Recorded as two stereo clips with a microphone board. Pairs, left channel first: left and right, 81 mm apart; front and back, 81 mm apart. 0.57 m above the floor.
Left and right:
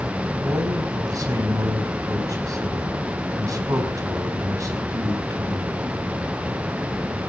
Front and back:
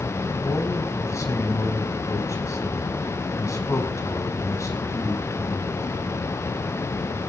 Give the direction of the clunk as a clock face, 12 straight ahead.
I don't hear a clunk.